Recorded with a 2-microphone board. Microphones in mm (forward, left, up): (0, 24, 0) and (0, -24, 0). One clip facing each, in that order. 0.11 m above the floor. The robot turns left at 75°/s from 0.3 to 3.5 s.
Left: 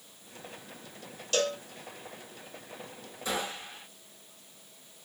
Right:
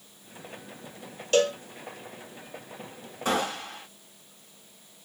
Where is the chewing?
No chewing in this recording.